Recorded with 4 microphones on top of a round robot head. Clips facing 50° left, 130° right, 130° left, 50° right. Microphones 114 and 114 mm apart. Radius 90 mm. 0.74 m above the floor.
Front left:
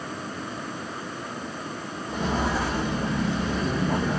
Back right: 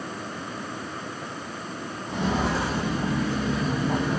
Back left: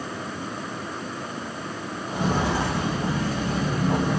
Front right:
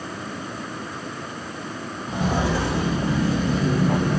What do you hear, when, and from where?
2.1 s footsteps: 40° right, 1.8 m; by 4.2 s 45° right, 0.7 m